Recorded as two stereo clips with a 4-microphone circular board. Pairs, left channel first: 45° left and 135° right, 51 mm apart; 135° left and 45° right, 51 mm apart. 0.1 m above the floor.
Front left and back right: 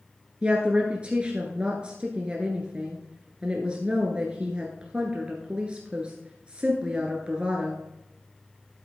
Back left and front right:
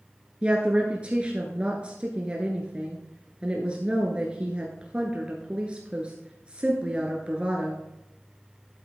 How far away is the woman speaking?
About 1.3 m.